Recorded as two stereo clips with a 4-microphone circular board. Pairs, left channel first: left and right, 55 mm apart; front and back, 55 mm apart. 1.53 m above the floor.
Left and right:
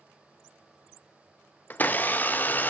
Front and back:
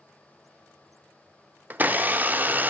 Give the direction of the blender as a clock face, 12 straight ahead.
8 o'clock.